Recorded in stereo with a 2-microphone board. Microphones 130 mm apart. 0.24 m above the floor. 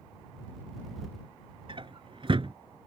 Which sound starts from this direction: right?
A drawer, at 1.7 s.